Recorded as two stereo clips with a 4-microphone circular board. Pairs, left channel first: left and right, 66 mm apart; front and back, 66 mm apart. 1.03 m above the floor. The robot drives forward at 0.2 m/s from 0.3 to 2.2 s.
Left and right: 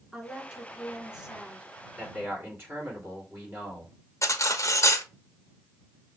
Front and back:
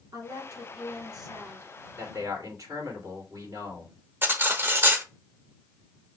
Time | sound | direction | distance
0.1 | a woman speaking | 170° right | 3 m
2.0 | a man speaking | 145° right | 3.5 m
4.2 | cutlery clinking | 125° left | 0.7 m